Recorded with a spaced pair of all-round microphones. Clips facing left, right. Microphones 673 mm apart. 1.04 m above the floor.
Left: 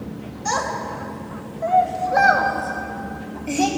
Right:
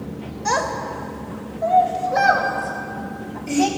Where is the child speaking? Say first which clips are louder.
Right 2 dB; 75° right (ahead or behind), 2.5 m; by 3.7 s 40° right (ahead or behind), 4 m.